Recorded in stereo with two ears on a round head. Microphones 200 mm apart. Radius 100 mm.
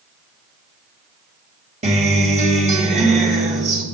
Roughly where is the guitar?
Right.